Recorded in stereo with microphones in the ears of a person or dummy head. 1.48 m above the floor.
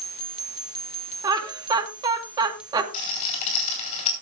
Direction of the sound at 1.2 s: 20° right (ahead or behind).